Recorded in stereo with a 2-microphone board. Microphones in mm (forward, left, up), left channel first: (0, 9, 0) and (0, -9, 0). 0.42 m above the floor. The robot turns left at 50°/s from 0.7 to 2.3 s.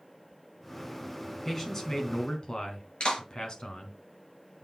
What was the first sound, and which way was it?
A man speaking, 170° left.